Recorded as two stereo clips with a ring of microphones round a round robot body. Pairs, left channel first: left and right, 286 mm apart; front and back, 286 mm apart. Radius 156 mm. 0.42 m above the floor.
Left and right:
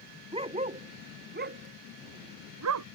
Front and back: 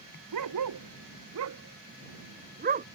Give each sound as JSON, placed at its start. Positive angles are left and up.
{"t": 0.3, "sound": "a dog barking", "azimuth_deg": -160}